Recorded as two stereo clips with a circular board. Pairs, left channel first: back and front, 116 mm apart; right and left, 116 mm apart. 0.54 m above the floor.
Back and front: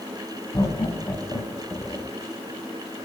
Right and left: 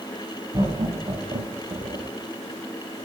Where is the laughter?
125° left, 3.5 m; by 2.1 s 95° left, 1.5 m.